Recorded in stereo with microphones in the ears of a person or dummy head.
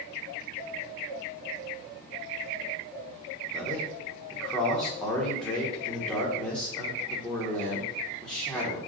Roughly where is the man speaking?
Centre.